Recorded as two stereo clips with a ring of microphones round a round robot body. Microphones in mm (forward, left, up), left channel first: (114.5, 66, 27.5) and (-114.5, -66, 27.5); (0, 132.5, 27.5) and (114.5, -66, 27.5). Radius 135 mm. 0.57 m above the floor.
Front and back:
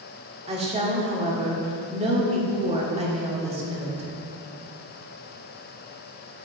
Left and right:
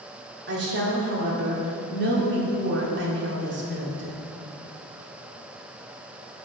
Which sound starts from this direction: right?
A woman speaking, at 0.5 s.